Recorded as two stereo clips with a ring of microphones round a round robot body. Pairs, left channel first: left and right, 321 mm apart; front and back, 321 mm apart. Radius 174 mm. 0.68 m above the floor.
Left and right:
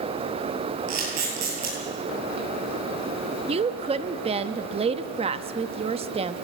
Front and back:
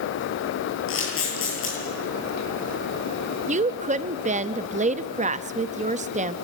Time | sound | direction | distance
0.9 | a camera shutter | 50° right | 10 m
3.5 | a woman speaking | 140° right | 0.6 m